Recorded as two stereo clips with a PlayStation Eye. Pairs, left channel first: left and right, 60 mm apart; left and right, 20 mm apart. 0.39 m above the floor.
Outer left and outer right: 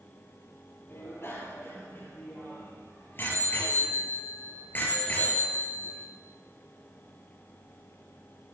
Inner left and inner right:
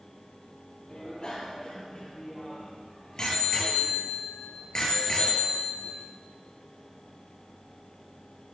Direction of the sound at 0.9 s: 40° left (ahead or behind).